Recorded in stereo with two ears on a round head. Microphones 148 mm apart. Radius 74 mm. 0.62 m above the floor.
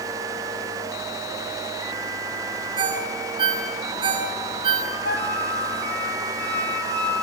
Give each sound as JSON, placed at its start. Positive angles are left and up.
{"t": 2.8, "sound": "a ringtone", "side_deg": -30, "distance_m": 7.0}
{"t": 5.0, "sound": "a flute", "side_deg": 70, "distance_m": 5.0}